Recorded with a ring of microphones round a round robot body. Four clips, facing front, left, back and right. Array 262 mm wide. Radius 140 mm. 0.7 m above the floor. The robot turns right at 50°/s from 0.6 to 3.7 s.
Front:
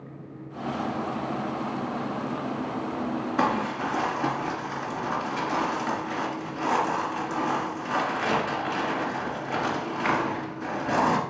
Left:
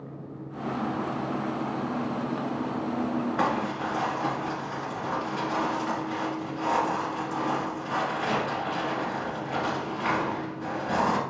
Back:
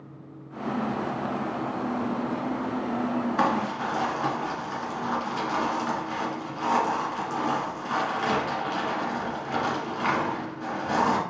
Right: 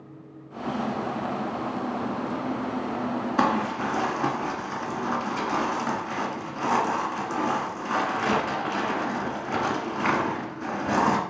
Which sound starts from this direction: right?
Crumpling, at 3.4 s.